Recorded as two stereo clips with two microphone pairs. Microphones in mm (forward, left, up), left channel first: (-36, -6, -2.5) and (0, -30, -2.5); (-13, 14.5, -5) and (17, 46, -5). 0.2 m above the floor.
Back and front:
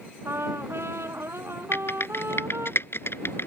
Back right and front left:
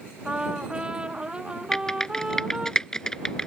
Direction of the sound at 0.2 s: 25° right.